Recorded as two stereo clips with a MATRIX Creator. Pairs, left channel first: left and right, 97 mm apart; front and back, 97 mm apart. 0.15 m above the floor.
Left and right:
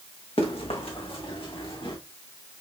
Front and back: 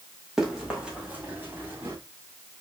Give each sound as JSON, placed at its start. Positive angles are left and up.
{"t": 0.4, "sound": "running footsteps", "azimuth_deg": 95, "distance_m": 3.0}